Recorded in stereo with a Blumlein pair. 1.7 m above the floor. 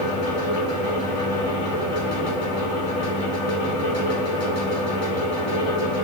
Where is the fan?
45° left, 1.5 m.